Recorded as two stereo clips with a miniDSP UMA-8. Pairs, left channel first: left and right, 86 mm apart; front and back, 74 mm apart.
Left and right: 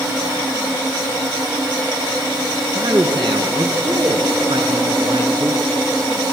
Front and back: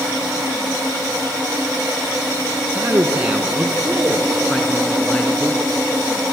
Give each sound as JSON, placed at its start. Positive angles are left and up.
{"t": 2.8, "sound": "a man speaking", "azimuth_deg": -115, "distance_m": 2.5}